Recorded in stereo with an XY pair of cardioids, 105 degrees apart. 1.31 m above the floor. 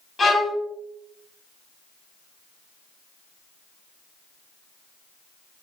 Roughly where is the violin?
Ahead left.